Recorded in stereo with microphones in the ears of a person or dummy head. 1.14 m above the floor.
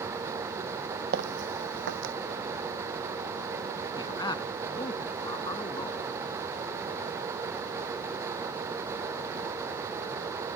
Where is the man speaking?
25° left (ahead or behind).